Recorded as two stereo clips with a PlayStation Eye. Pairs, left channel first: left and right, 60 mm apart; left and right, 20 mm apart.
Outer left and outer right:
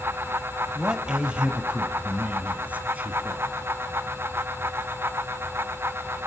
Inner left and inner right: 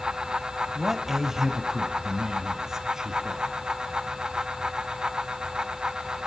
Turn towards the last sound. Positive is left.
turn(degrees=-25)  # may be behind; listen again after turning